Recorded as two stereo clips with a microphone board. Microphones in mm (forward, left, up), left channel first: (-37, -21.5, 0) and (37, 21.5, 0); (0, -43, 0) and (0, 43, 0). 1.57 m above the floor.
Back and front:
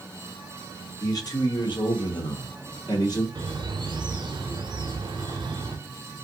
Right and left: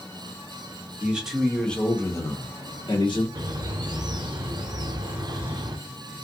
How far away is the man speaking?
About 1.1 m.